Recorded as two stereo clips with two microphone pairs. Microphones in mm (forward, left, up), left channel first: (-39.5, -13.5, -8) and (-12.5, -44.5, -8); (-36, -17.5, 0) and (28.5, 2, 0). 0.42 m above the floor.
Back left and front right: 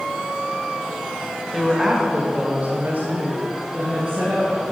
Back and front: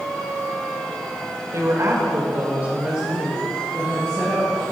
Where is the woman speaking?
45° left, 2 m; by 4.6 s 85° right, 4 m.